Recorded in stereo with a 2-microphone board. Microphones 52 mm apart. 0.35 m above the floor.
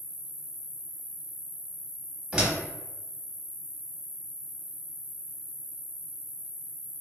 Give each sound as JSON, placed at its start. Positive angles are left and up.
{"t": 0.0, "sound": "an insect", "side_deg": 40, "distance_m": 0.8}
{"t": 2.3, "sound": "a door slam", "side_deg": -15, "distance_m": 0.8}